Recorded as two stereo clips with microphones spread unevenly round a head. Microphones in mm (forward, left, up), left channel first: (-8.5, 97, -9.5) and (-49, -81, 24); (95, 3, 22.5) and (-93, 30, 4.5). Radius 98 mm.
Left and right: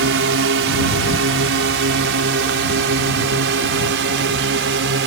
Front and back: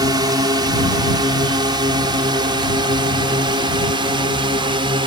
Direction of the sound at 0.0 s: 115° right.